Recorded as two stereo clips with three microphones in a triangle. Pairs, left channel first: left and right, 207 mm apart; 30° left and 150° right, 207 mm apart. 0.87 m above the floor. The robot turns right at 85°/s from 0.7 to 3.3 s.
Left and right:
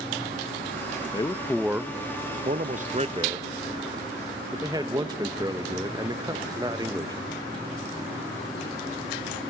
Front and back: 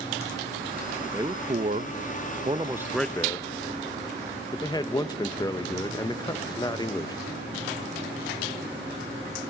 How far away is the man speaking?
About 0.5 m.